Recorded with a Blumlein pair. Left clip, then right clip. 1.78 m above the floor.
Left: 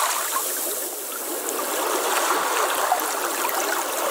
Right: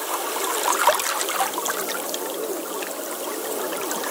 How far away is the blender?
No blender in this recording.